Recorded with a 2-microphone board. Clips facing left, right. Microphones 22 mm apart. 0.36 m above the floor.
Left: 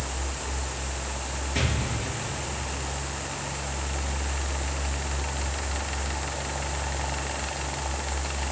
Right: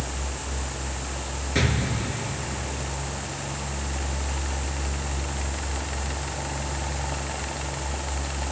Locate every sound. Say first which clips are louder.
1.6 s an explosion: right 4 dB; 25° right (ahead or behind), 3.5 m